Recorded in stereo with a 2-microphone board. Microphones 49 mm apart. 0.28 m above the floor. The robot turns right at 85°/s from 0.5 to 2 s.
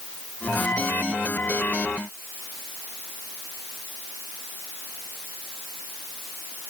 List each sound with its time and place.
Only background noise.